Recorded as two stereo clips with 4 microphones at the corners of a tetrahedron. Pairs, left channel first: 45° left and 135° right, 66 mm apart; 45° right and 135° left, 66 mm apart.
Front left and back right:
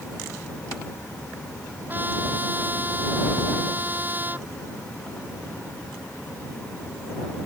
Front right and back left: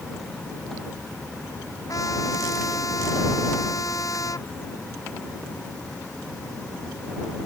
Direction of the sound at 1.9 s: 75° right.